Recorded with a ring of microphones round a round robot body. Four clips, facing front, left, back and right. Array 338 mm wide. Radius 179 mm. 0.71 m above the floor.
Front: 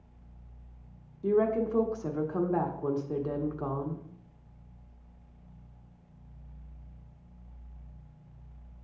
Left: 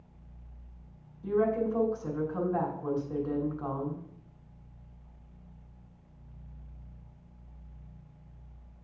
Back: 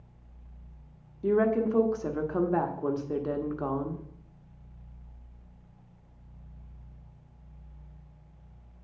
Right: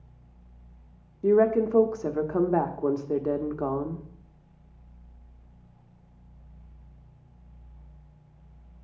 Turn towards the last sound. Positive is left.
turn(degrees=-100)